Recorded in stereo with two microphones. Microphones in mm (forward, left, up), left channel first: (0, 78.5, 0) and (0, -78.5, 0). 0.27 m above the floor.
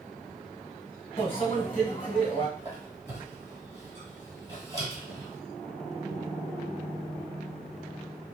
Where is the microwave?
40° left (ahead or behind), 1.7 m.